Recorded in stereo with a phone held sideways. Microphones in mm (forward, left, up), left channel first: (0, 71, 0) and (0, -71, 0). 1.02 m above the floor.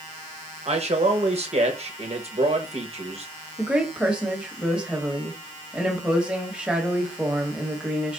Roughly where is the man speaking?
Right.